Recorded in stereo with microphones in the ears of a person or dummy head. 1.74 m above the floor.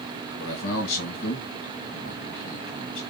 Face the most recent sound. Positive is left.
turn(degrees=65)  # may be behind; listen again after turning